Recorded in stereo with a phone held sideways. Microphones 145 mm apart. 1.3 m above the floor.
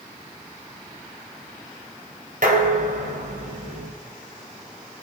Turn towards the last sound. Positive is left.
turn(degrees=-65)  # may be behind; listen again after turning